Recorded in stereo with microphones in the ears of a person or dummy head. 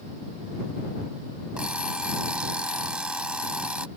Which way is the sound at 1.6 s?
5° right (ahead or behind).